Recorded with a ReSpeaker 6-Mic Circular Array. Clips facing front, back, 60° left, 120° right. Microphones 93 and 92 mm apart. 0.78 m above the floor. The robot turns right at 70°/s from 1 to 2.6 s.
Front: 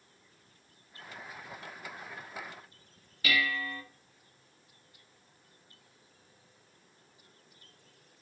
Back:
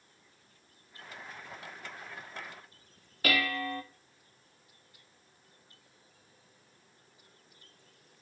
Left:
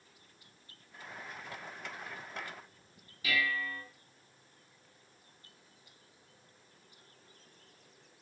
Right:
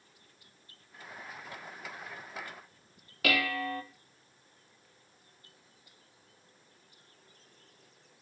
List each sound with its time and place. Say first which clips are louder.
3.2 s dishes clattering: back 1 dB, right 3 dB; 140° right, 1.0 m